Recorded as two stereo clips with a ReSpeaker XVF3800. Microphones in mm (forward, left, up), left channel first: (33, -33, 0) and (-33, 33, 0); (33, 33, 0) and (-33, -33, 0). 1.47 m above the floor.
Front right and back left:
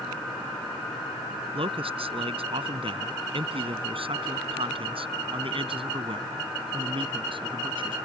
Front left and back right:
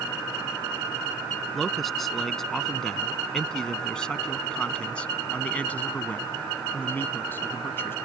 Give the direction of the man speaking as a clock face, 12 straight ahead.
8 o'clock.